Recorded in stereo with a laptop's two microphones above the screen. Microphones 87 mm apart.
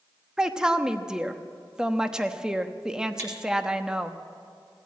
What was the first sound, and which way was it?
A woman speaking, 10° right (ahead or behind).